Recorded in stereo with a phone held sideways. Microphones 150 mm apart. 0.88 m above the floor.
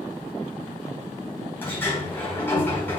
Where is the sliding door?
15° left (ahead or behind), 4 m.